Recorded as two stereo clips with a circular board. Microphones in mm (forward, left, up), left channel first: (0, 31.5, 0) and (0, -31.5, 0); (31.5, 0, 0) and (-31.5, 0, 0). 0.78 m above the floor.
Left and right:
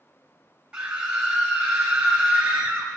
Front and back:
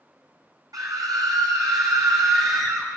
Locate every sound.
0.7 s a scream: 165° right, 5.5 m